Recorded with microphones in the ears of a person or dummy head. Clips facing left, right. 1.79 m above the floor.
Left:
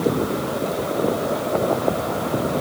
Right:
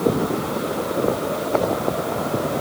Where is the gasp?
No gasp in this recording.